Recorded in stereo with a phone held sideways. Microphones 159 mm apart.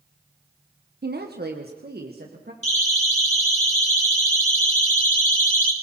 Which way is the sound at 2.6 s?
45° left (ahead or behind).